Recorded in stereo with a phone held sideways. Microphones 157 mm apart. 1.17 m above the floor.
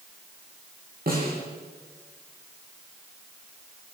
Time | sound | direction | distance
1.1 | a snare drum | 70° right (ahead or behind) | 9 m